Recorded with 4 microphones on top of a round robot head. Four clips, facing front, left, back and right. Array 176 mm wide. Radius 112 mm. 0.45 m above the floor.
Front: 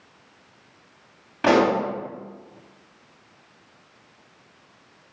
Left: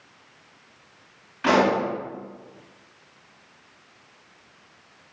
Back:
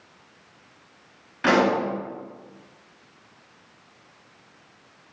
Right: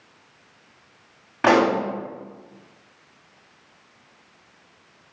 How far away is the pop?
About 2.5 m.